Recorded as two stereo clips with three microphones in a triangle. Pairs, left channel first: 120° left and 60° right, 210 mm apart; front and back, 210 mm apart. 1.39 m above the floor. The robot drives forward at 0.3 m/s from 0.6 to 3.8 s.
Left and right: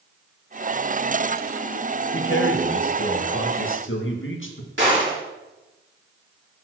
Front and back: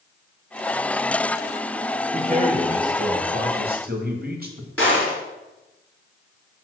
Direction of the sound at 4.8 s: 85° right.